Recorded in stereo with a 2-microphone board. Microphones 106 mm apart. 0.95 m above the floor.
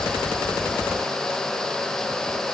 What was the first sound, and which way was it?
Only background noise.